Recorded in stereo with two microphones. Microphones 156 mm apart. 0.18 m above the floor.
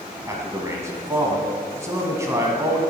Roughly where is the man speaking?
Centre.